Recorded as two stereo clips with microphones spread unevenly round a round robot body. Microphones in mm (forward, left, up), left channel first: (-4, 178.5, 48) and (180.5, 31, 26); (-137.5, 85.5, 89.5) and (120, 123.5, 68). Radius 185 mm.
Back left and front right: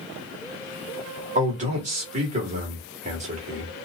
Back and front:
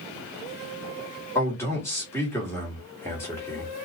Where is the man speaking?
90° right, 1.4 m.